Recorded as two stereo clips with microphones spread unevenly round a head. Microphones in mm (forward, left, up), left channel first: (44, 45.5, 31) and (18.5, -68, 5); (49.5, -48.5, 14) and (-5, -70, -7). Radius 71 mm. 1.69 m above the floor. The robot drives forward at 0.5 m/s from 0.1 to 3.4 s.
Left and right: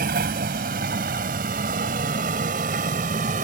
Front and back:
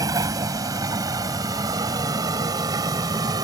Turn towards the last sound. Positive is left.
turn(degrees=-145)